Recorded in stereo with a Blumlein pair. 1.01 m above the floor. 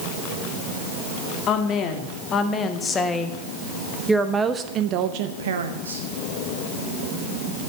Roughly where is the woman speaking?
Ahead left.